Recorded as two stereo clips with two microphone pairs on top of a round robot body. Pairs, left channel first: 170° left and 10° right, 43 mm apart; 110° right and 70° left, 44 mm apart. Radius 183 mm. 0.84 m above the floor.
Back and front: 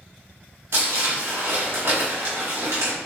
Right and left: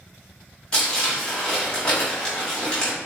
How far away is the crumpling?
About 1.2 m.